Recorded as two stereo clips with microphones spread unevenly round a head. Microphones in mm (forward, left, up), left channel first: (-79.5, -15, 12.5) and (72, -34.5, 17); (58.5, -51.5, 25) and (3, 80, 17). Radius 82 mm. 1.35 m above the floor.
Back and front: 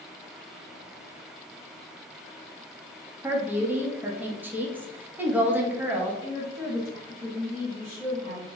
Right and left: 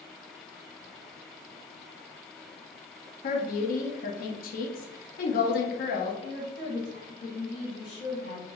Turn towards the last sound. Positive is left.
turn(degrees=-70)